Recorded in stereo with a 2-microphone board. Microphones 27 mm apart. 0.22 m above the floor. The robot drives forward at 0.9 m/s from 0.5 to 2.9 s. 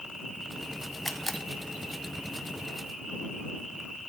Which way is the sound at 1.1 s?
15° left (ahead or behind).